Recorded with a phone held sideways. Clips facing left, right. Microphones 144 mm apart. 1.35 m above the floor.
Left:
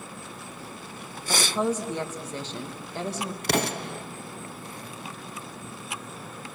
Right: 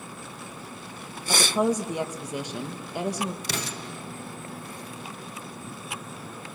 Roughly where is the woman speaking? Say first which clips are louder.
Right 2 dB; centre.